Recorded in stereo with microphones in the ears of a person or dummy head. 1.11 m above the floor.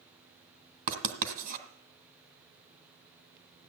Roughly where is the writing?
Right.